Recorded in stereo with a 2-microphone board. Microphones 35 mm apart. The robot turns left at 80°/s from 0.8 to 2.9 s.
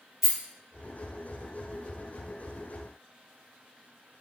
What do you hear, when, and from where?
0.2 s a rattle: 10° right (ahead or behind), 1.3 m